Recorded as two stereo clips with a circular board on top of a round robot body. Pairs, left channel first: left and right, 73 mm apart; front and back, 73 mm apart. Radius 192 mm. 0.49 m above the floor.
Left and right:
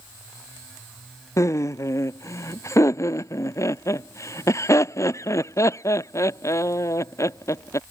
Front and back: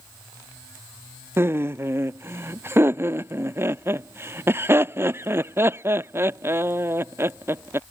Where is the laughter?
130° left.